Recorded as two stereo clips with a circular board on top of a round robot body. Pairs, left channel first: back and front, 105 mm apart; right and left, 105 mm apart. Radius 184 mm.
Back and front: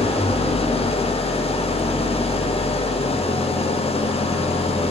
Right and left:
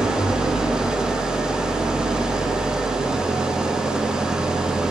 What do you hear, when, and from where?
0.0 s an engine running: 175° left, 1.1 m